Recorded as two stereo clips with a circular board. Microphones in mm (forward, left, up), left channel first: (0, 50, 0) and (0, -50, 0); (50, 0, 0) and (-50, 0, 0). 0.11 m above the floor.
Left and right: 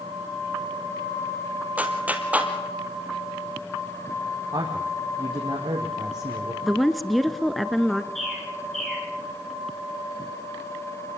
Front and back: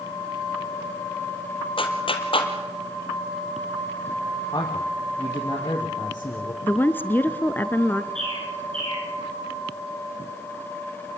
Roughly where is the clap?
Ahead.